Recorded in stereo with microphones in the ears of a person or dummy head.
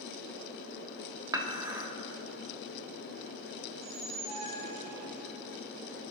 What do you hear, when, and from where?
1.3 s dishes clattering: 20° right (ahead or behind), 1.3 m
3.7 s a squeak: 45° right (ahead or behind), 4 m